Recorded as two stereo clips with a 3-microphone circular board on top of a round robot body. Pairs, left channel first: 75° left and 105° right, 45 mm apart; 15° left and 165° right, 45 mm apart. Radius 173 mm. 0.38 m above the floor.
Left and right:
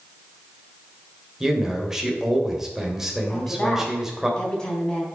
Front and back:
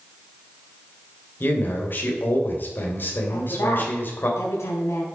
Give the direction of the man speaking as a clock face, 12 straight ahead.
1 o'clock.